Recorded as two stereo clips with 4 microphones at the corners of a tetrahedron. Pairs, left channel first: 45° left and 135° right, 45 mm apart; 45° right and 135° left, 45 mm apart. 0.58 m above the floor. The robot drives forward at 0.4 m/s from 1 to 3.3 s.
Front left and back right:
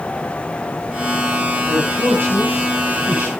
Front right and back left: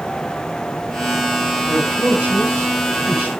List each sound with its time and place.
1.6 s a man speaking: 170° right, 6 m